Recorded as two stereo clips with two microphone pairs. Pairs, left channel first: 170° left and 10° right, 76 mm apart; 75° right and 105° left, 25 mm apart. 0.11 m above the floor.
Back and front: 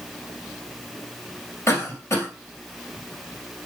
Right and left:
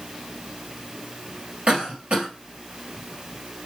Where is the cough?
125° left, 2.5 m.